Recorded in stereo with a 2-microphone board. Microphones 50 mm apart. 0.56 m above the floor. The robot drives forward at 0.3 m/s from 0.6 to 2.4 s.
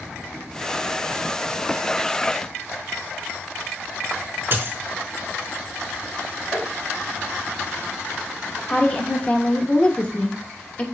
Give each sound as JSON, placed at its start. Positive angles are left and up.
{"t": 4.5, "sound": "a dropped coin", "side_deg": -45, "distance_m": 0.6}
{"t": 6.5, "sound": "tapping", "side_deg": 0, "distance_m": 2.0}
{"t": 8.7, "sound": "a woman speaking", "side_deg": 25, "distance_m": 0.7}